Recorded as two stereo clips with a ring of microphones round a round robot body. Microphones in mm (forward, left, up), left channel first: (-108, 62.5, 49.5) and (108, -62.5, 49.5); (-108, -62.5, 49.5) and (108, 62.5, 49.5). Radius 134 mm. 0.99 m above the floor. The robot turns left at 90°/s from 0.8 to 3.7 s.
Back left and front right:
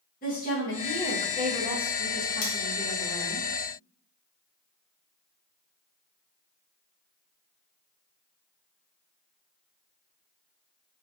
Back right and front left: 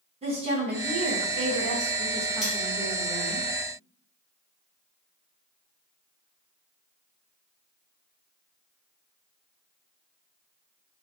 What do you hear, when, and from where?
0.2 s a woman speaking: 95° left, 1.2 m; by 3.4 s 140° right, 1.2 m
2.4 s cutlery clinking: 120° left, 0.8 m; by 2.5 s 110° left, 0.8 m